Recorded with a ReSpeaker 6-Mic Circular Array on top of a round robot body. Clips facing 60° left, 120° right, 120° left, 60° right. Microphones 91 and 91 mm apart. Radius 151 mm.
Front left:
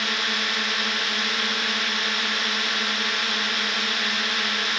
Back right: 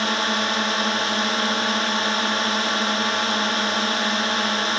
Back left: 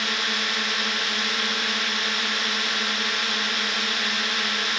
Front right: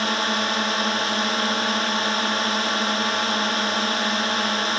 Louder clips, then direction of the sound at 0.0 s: Back right 5 dB, front right 5 dB; 85° right.